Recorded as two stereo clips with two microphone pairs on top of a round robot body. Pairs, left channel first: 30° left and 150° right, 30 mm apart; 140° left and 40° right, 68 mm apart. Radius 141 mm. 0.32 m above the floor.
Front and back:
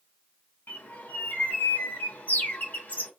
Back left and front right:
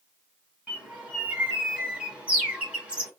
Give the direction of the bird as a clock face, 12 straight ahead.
11 o'clock.